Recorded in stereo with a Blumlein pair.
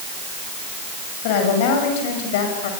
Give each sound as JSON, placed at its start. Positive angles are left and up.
{"t": 1.2, "sound": "a woman speaking", "azimuth_deg": 50, "distance_m": 7.5}